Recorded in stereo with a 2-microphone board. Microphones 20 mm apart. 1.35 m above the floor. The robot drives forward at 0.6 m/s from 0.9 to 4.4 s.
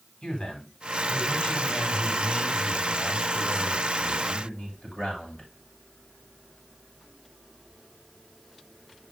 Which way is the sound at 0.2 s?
70° left (ahead or behind).